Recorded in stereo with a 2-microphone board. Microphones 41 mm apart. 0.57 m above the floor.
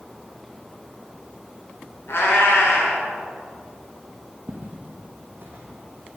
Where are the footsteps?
50° right (ahead or behind), 0.8 m; by 6.2 s 70° right (ahead or behind), 1.5 m.